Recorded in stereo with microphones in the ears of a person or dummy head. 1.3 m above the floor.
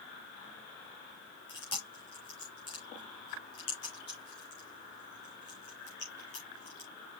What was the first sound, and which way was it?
Chewing, 35° left (ahead or behind).